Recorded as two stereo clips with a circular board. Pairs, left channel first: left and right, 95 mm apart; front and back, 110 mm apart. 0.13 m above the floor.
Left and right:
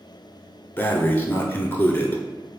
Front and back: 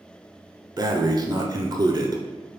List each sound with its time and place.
0.8 s breathing: 150° left, 0.6 m